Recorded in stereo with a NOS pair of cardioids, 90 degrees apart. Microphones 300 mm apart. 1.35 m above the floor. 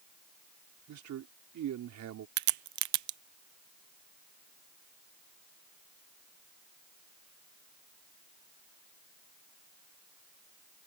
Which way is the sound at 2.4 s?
70° right.